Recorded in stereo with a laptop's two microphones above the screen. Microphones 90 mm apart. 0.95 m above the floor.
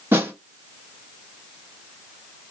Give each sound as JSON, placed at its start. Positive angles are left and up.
{"t": 0.1, "sound": "a snare drum", "side_deg": -25, "distance_m": 1.5}